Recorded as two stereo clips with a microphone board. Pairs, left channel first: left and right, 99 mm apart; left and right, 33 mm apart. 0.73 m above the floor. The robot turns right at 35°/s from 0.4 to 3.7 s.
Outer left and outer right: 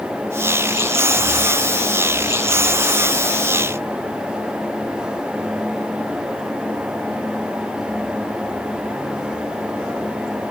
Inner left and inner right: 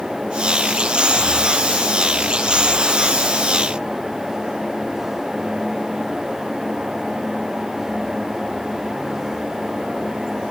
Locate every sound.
Only background noise.